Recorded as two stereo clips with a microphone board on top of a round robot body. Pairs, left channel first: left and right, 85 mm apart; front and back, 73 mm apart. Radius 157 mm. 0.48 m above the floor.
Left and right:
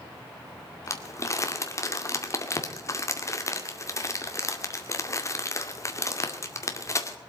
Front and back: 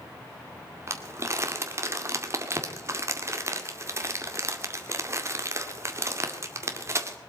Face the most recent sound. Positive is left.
turn(degrees=135)